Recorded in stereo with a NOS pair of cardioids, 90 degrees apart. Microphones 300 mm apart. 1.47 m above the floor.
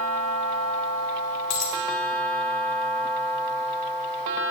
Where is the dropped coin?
70° left, 2.5 m.